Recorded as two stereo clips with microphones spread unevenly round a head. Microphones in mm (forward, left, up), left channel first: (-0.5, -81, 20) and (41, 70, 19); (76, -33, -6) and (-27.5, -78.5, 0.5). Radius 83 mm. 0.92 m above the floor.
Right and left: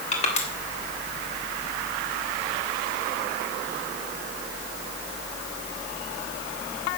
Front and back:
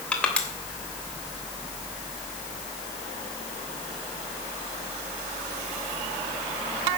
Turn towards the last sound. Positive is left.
turn(degrees=-55)